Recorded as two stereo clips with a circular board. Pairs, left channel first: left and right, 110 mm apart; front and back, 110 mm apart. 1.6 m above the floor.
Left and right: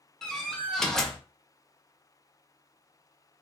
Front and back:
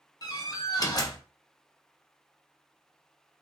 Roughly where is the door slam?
Ahead.